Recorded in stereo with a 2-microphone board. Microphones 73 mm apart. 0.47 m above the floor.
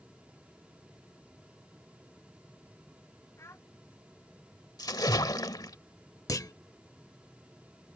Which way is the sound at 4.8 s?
65° left (ahead or behind).